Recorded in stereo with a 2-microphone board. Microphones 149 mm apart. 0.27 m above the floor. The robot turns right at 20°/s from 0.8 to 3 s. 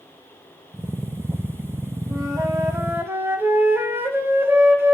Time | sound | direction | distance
2.1 | a flute | 25° right (ahead or behind) | 1.6 m